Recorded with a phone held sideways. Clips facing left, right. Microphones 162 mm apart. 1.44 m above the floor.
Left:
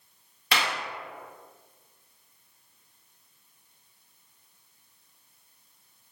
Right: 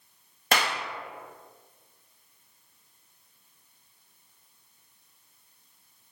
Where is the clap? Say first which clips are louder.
Right 2 dB; 45° right (ahead or behind), 0.6 m.